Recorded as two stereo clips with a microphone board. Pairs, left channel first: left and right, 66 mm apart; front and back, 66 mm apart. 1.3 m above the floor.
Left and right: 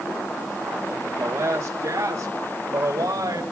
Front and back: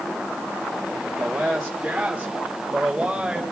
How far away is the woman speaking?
About 1.5 m.